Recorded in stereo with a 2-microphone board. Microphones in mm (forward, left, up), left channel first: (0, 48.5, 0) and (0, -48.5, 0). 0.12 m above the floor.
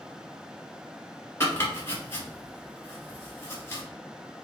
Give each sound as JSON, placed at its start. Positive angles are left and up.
{"t": 1.4, "sound": "chopping", "side_deg": 25, "distance_m": 1.6}